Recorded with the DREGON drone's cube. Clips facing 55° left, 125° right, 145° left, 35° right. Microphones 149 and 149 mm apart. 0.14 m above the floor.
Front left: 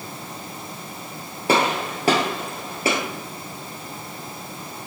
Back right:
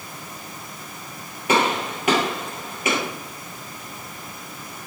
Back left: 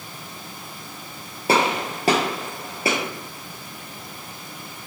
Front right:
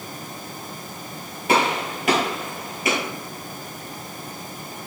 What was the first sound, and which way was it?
A gunshot, 100° left.